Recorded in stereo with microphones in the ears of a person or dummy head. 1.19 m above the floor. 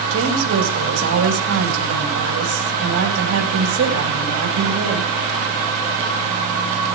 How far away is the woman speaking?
About 4.5 m.